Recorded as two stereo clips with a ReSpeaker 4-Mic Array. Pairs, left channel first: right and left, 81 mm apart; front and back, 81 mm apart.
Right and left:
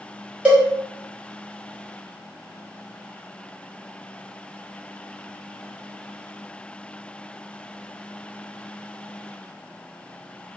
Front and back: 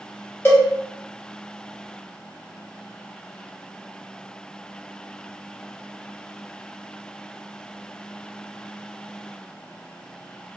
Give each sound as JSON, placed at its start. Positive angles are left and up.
{"t": 0.5, "sound": "a cowbell", "azimuth_deg": 25, "distance_m": 0.7}